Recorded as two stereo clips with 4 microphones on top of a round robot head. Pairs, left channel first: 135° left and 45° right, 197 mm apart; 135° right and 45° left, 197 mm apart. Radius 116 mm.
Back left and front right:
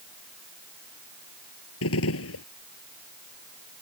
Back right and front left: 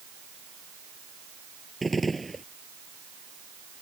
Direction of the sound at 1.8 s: 135° left.